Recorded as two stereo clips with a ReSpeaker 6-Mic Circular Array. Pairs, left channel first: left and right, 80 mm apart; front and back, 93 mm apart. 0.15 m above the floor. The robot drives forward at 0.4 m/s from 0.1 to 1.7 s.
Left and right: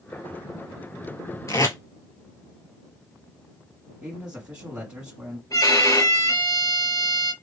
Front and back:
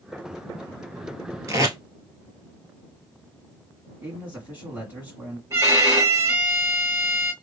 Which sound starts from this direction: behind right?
A man speaking, at 4.0 s.